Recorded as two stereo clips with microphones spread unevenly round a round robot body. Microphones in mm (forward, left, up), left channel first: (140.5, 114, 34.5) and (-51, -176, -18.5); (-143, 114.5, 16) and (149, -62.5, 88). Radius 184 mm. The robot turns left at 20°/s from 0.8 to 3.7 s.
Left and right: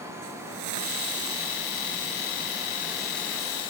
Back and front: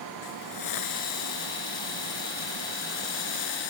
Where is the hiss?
170° right; by 3.7 s 130° left.